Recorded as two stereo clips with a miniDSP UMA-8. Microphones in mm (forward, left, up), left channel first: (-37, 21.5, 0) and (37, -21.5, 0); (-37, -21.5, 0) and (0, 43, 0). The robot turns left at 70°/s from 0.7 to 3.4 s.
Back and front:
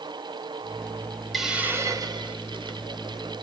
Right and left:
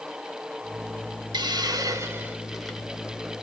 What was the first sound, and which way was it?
A hiss, 60° left.